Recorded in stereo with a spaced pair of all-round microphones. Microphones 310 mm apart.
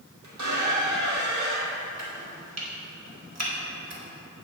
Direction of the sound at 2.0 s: 55° right (ahead or behind).